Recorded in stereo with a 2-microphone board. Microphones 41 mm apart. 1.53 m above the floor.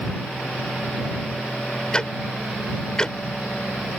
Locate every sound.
1.9 s ticking: 15° left (ahead or behind)